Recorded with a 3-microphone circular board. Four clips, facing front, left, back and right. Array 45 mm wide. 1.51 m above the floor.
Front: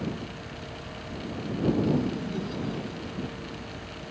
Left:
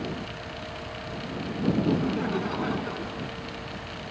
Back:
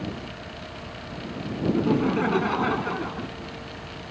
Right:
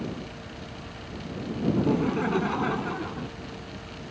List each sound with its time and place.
1.7 s laughter: 165° right